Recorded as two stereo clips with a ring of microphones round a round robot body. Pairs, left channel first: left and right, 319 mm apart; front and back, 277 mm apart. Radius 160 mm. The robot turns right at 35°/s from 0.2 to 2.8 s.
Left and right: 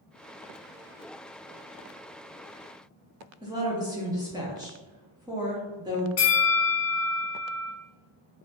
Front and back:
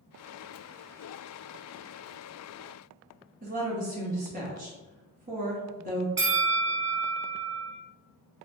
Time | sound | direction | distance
3.4 | a woman speaking | 155° right | 0.7 m
6.2 | a bell | 135° left | 1.0 m